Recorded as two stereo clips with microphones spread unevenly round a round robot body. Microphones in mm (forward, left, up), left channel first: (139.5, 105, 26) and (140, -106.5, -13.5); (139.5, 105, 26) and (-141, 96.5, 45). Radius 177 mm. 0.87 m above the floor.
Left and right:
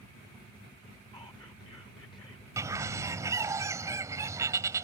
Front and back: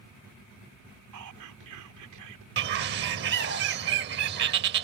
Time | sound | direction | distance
1.1 | whispering | 170° left | ?
2.6 | a bird | 175° right | ?